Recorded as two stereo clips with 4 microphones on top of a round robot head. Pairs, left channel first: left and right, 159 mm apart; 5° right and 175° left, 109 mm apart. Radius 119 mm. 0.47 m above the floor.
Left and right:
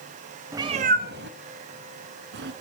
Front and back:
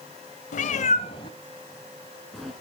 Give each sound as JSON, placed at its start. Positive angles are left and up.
{"t": 0.5, "sound": "a cat meowing", "azimuth_deg": -15, "distance_m": 0.8}